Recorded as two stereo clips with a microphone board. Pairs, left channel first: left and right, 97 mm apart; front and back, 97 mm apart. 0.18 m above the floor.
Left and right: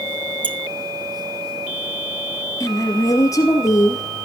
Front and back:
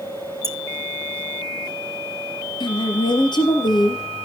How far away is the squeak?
About 0.6 m.